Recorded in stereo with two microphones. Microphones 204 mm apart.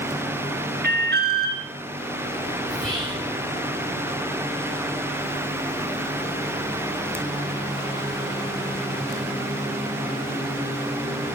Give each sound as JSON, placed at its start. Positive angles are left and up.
{"t": 0.8, "sound": "an alarm", "side_deg": -50, "distance_m": 1.2}
{"t": 2.7, "sound": "whispering", "side_deg": 5, "distance_m": 5.0}